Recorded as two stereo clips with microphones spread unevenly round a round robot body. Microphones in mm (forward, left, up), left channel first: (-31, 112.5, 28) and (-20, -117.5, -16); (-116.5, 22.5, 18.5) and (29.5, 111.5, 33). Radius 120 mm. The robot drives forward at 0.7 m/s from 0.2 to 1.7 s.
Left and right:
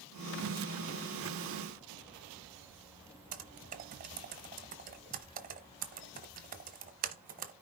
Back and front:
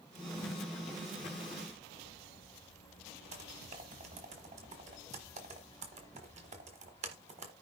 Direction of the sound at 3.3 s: 30° right.